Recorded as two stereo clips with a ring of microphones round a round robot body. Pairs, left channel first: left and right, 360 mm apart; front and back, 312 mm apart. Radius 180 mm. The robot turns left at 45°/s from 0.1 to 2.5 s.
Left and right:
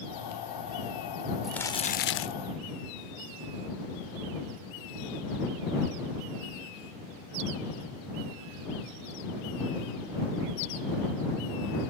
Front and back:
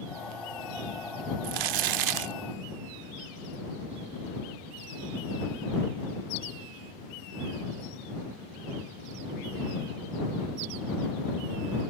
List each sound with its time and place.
1.4 s crumpling: straight behind; by 2.4 s 140° left